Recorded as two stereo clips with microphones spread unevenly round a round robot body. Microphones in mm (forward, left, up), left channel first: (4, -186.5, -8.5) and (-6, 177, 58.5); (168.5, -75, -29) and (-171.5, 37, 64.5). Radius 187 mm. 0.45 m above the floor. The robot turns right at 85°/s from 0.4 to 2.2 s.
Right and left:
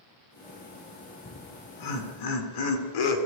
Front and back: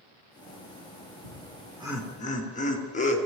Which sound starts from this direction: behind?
Laughter, at 1.2 s.